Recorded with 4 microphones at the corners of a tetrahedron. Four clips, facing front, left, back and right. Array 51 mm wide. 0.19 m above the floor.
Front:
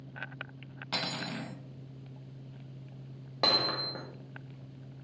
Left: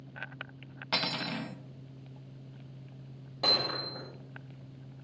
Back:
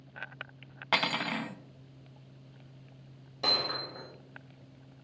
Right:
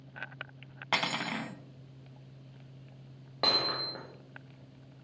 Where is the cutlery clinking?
155° right, 0.8 m.